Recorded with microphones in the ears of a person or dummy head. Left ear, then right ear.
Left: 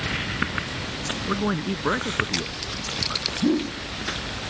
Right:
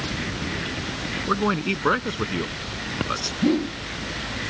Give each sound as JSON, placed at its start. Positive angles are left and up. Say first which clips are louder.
{"t": 1.3, "sound": "a man speaking", "louder": "right 5 dB", "side_deg": -80}
{"t": 3.4, "sound": "a whoosh", "louder": "right 3 dB", "side_deg": -20}